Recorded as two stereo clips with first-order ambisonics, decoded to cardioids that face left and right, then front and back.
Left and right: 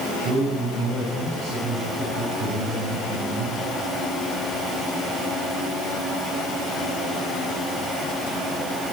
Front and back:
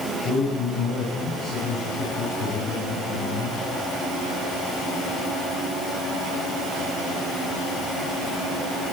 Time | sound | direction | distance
0.2 | a man speaking | 35° right | 8 m